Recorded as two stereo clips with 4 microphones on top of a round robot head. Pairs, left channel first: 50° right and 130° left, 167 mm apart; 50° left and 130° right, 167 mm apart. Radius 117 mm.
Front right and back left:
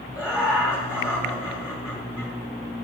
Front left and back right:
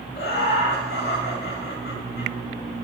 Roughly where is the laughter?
Ahead left.